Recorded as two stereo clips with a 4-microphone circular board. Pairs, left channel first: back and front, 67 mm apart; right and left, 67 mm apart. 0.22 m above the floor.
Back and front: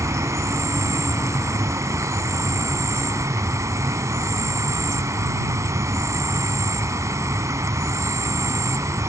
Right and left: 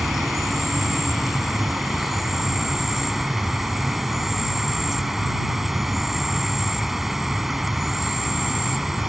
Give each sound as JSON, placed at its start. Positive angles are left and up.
{"t": 0.0, "sound": "an insect", "azimuth_deg": 5}